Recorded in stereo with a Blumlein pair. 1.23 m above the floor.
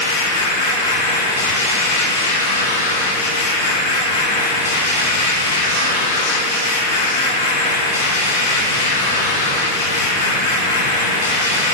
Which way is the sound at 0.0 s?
70° left.